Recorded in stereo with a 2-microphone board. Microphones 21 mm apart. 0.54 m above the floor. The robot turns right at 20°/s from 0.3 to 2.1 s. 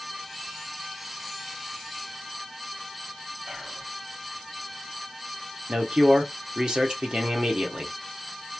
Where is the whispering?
35° right (ahead or behind), 1.1 m.